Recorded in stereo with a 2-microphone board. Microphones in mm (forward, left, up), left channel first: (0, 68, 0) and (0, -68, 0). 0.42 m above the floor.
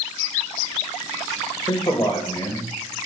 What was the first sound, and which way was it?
A man speaking, 35° left (ahead or behind).